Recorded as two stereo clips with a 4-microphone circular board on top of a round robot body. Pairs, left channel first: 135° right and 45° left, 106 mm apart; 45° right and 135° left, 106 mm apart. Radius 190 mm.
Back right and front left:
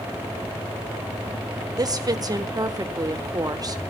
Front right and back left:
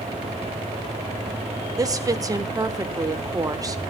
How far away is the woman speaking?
About 1.4 m.